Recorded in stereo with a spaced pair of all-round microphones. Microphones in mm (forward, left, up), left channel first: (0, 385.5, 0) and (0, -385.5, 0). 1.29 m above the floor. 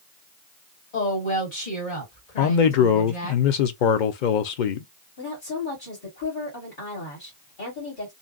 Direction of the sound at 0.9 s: 50° left (ahead or behind).